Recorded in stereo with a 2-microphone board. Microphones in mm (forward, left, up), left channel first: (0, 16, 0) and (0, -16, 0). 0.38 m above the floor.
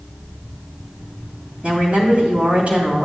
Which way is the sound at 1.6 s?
40° right (ahead or behind).